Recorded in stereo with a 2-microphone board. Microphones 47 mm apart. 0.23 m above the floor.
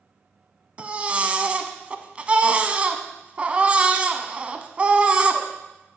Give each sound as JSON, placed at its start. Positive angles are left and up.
{"t": 0.8, "sound": "a baby crying", "side_deg": -30, "distance_m": 0.8}